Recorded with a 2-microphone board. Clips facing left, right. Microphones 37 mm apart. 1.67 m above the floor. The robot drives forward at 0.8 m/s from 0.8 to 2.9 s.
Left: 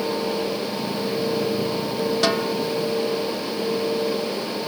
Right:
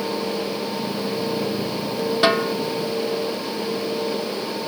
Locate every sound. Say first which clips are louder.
2.2 s a snare drum: right 6 dB; 25° right (ahead or behind)